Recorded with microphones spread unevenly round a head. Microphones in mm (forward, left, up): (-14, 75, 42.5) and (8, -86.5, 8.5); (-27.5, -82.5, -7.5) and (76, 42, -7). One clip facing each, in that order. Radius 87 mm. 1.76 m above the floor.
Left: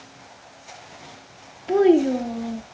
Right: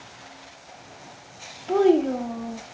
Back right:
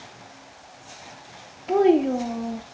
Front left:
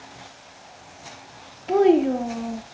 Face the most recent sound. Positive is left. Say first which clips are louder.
# left 2 dB, front left 1 dB
turn(degrees=140)